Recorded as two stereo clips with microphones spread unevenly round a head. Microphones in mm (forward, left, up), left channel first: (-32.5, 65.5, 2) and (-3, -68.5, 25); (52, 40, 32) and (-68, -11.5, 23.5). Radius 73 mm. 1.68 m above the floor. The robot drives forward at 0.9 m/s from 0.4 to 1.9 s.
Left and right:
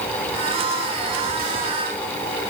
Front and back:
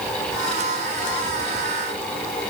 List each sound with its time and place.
Only background noise.